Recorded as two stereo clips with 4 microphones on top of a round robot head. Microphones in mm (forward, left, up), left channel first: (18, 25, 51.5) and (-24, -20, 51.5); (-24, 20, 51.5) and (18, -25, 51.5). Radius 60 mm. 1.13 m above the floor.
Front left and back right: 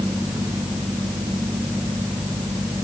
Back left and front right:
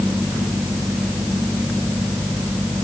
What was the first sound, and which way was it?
Only background noise.